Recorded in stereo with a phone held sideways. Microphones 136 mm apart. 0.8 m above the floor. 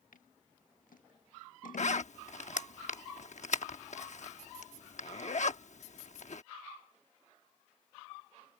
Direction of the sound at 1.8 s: 60° left (ahead or behind).